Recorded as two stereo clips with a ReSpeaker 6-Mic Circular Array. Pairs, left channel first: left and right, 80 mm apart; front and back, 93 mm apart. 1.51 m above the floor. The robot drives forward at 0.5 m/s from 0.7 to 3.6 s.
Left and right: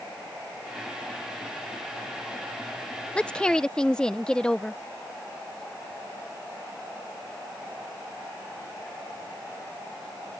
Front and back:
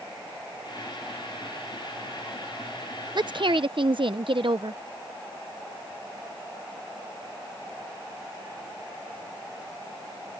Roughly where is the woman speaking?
Behind.